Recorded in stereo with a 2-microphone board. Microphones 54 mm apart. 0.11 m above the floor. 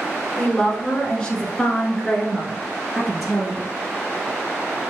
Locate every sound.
0.4 s a woman speaking: 15° left (ahead or behind), 1.2 m; by 3.6 s 5° left (ahead or behind), 1.6 m